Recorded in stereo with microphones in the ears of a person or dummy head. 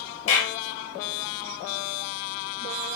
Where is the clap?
85° left, 4 m.